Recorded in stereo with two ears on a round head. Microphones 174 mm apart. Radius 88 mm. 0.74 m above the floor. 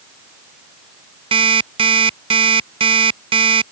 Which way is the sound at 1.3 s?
25° right (ahead or behind).